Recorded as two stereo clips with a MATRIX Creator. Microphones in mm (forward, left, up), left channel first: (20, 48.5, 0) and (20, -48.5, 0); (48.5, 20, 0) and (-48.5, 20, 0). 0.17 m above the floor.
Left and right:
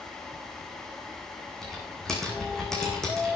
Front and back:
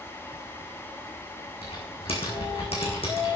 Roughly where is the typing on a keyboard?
Ahead.